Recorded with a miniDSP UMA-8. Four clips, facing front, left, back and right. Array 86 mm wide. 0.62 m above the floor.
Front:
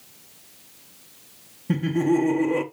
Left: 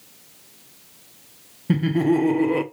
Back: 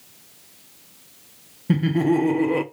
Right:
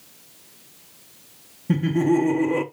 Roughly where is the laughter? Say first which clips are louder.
Even, back 2 dB; behind left.